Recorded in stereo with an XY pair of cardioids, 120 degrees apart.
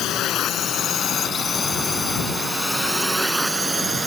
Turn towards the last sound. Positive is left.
turn(degrees=-20)